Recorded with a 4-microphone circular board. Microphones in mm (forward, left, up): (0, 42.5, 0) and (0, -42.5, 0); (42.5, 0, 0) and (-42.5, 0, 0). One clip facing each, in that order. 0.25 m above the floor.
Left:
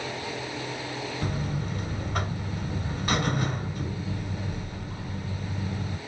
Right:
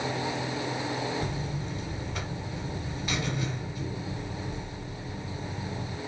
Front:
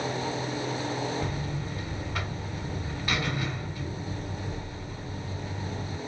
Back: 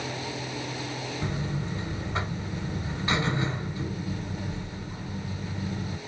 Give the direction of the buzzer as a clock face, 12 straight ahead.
8 o'clock.